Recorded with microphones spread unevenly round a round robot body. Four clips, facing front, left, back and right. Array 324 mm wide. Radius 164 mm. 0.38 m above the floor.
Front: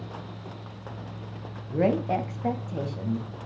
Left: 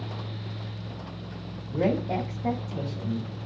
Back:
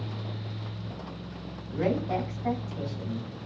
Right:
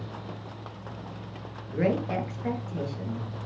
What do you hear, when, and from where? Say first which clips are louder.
1.7 s a woman speaking: left 1 dB, front 4 dB; 20° left, 2.5 m